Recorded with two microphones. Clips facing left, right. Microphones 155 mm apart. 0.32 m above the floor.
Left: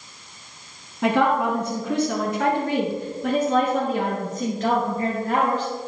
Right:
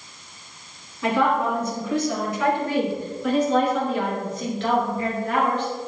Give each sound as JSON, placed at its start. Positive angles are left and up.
{"t": 1.0, "sound": "a woman speaking", "side_deg": 70, "distance_m": 2.5}